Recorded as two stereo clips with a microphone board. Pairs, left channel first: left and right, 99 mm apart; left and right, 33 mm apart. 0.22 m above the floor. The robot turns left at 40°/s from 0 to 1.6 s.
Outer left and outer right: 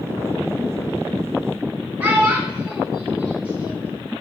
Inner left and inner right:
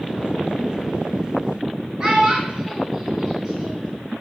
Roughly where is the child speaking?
Centre.